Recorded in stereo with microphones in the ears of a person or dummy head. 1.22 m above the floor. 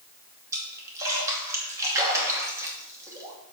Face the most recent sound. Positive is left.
turn(degrees=-10)  # may be behind; listen again after turning